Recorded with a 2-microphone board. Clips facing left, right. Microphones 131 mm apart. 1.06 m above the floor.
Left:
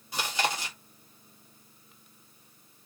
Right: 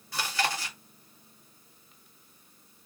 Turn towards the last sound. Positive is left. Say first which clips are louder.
# even
turn(degrees=20)  # may be behind; listen again after turning